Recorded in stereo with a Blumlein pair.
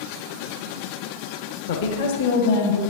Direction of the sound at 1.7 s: 60° left.